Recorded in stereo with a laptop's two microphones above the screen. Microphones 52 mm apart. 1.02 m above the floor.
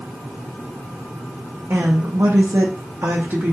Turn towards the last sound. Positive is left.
turn(degrees=-40)  # may be behind; listen again after turning